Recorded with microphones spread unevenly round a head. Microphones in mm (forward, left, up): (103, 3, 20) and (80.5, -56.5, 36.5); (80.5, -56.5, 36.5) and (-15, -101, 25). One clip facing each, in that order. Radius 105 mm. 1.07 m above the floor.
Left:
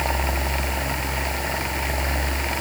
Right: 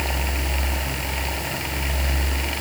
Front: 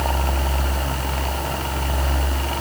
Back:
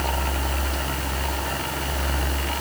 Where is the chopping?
I don't hear chopping.